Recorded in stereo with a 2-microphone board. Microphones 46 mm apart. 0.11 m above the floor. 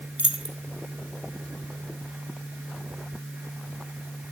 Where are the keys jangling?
20° right (ahead or behind), 0.8 m.